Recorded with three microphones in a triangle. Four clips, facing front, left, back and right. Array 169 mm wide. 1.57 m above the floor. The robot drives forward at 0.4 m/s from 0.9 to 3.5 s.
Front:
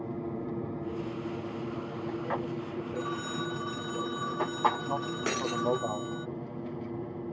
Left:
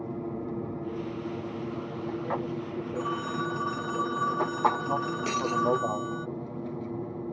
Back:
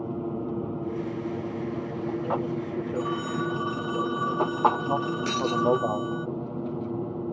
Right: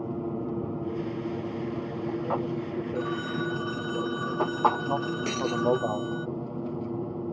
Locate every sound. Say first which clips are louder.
0.0 s an aircraft: right 3 dB, back 5 dB; 155° right; by 7.3 s 160° right
3.0 s a phone ringing: left 1 dB, back 6 dB; 125° left; by 6.3 s 135° left
5.3 s breaking glass: left 2 dB, back 4 dB; straight ahead